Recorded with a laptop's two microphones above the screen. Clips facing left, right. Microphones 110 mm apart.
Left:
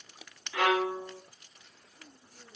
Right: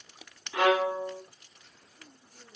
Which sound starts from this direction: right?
A violin, at 0.5 s.